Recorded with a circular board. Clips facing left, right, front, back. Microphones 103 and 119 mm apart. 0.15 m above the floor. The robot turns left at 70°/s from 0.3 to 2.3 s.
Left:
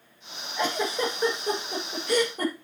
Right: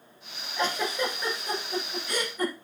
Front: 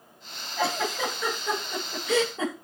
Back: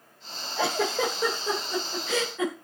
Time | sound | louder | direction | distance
0.6 | a giggle | left 1 dB, back 2 dB | straight behind | 8.5 m